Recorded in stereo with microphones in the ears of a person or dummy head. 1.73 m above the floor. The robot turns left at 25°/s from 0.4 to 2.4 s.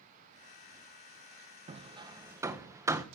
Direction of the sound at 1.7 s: 30° right (ahead or behind).